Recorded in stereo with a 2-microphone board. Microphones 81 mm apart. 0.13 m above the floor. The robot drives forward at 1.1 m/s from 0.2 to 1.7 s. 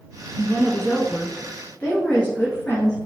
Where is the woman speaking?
20° left (ahead or behind), 1.3 m; by 3.0 s 15° left (ahead or behind), 1.7 m.